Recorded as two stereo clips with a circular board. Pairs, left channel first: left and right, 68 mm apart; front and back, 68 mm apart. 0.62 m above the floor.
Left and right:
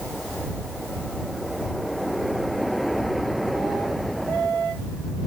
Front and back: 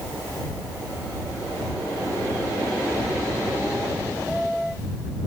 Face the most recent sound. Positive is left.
No sound to turn to.